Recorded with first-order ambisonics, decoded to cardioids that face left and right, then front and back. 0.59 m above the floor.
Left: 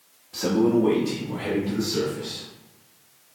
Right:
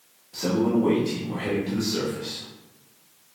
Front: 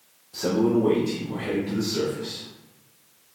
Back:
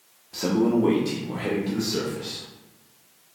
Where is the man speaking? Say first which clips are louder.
Left 3 dB, even; 165° left, 0.8 m; by 2.5 s 150° right, 1.6 m.